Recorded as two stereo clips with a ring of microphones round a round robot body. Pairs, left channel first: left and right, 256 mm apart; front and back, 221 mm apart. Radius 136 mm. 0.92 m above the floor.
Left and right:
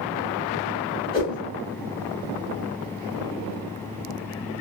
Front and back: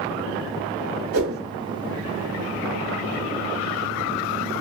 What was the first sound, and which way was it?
A whoosh, 160° left.